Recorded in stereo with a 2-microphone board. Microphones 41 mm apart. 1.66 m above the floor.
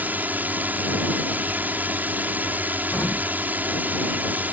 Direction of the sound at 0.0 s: 40° right (ahead or behind).